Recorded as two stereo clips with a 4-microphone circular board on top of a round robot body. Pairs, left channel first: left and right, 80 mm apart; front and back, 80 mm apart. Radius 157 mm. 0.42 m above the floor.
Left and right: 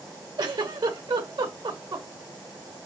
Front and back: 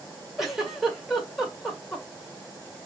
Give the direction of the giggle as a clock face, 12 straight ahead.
3 o'clock.